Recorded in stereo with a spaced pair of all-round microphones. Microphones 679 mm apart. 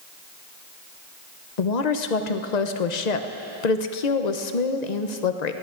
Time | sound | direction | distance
1.6 | a woman speaking | 75° left (ahead or behind) | 0.8 m